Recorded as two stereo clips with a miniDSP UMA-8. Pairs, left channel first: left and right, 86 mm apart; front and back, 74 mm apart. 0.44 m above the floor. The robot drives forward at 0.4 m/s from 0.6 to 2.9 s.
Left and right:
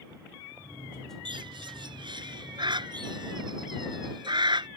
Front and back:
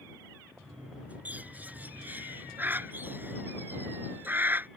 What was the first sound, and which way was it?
A bird, 110° right.